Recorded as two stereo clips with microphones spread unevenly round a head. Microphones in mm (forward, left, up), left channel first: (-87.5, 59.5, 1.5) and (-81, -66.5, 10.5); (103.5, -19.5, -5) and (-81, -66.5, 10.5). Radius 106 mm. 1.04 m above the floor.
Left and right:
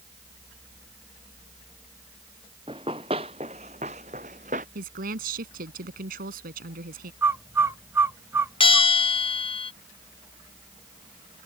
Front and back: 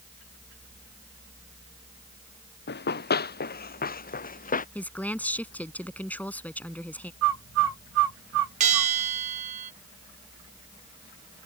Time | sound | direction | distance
2.7 | running footsteps | 20° right | ?
4.8 | a woman speaking | 70° right | ?
7.2 | a bird | 160° right | ?
8.6 | a bell | 135° left | ?